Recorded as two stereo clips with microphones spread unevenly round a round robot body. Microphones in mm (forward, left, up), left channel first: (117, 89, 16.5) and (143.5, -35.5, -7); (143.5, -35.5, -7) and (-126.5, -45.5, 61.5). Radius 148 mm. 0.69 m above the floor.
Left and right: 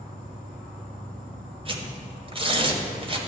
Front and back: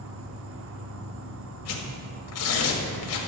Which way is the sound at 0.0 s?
130° right.